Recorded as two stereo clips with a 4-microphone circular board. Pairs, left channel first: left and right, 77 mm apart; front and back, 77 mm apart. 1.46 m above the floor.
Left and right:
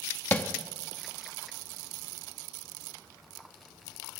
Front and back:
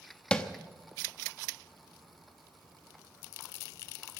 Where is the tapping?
65° left, 0.9 m.